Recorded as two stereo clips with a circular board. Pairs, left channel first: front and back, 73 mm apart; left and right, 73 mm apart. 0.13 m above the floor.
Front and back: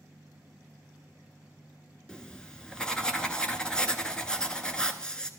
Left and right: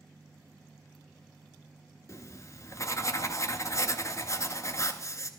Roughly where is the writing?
Left.